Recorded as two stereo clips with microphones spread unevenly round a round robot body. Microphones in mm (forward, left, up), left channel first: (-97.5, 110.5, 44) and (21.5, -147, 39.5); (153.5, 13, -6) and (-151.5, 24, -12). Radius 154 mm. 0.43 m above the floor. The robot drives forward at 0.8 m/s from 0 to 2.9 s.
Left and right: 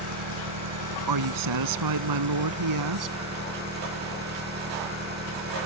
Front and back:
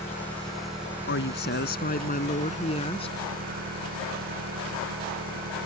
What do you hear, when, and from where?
0.0 s an engine running: 85° right; by 5.7 s 120° right
1.1 s a woman speaking: 55° right; by 3.2 s 75° right